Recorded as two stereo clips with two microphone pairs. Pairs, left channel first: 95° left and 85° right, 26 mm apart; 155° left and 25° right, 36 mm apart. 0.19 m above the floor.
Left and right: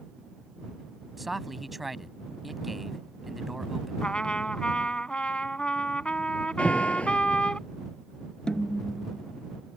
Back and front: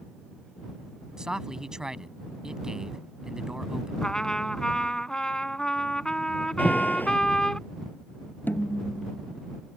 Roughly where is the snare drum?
Behind left.